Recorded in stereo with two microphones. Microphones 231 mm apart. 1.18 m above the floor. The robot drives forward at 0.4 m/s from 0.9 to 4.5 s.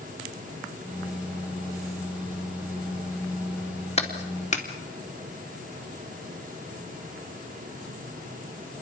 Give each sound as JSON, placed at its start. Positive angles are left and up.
{"t": 4.0, "sound": "a clap", "side_deg": 30, "distance_m": 2.5}